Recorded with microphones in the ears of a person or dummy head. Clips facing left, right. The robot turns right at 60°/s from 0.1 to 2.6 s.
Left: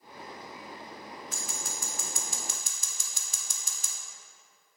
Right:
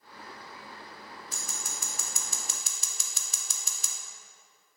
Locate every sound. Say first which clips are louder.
1.3 s scissors: left 3 dB; 35° right (ahead or behind), 0.9 m; by 4.0 s 65° right (ahead or behind), 0.9 m